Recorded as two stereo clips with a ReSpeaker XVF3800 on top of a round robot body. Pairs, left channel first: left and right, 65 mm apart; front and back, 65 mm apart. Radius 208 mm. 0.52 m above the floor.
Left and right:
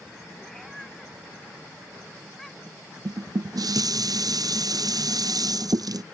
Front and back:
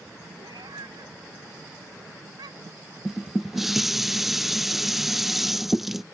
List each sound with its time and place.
0.4 s a cat meowing: 175° left
3.0 s dishes clattering: 95° right